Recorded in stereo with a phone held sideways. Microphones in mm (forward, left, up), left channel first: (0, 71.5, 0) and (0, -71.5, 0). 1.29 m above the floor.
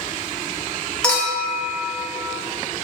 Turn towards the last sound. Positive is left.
turn(degrees=5)  # may be behind; listen again after turning